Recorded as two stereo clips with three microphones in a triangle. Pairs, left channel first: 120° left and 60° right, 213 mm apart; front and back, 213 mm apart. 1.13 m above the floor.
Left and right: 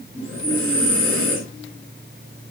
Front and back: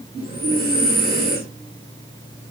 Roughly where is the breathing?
Ahead right.